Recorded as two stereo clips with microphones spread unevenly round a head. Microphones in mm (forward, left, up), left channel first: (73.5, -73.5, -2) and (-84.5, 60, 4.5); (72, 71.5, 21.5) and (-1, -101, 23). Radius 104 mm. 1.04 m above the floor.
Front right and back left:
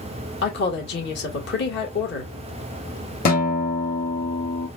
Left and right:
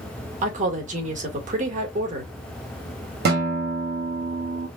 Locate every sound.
0.4 s a woman speaking: 70° right, 1.9 m
3.2 s a guitar: 85° right, 1.9 m